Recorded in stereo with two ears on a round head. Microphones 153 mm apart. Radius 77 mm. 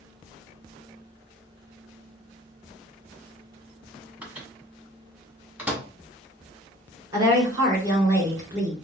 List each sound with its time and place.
4.2 s a microwave: 10° right (ahead or behind), 1.3 m
7.1 s a woman speaking: 20° right (ahead or behind), 2 m